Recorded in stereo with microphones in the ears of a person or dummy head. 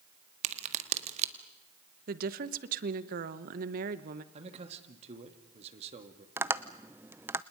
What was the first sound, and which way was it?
A crack, 45° right (ahead or behind).